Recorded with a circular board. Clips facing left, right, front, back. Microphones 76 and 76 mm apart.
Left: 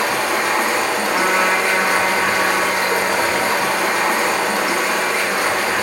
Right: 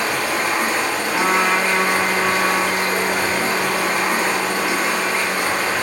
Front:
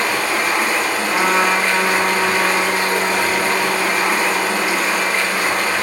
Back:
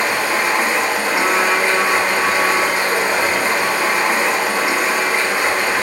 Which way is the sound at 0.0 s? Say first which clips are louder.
Left 2 dB, back 1 dB; 110° left.